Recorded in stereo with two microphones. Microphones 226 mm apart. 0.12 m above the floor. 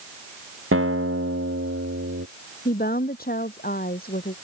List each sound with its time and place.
0.7 s a guitar: 70° right (ahead or behind)
2.6 s a woman speaking: 40° left (ahead or behind)